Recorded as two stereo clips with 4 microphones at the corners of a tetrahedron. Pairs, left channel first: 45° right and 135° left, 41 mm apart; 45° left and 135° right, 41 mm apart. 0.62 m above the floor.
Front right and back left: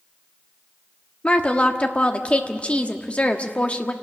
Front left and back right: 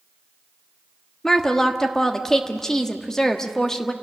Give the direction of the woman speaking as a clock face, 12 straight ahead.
1 o'clock.